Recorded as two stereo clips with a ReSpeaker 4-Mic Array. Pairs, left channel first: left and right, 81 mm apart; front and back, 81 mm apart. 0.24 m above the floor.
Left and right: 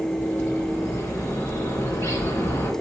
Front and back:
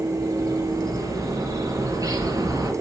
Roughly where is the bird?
Behind left.